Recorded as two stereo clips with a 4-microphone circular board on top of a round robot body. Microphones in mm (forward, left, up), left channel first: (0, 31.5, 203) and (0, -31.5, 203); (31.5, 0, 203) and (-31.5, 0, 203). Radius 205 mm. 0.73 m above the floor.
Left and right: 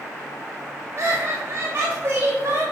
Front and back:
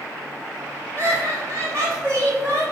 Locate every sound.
1.0 s laughter: 135° right, 1.8 m; by 2.6 s 150° right, 2.5 m